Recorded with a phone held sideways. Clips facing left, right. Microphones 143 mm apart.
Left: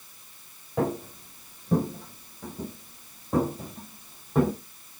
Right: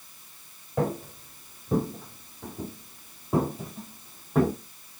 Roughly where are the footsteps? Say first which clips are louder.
Left 1 dB; centre.